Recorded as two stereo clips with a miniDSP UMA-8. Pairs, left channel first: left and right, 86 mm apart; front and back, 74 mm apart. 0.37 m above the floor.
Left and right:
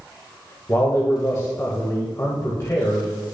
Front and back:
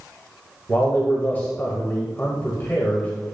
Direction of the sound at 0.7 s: 50° left.